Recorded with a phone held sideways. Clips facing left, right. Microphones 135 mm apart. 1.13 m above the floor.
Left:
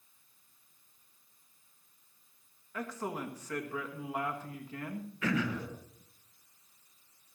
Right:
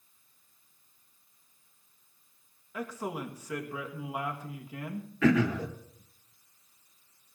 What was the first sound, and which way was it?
A man speaking, 10° right (ahead or behind).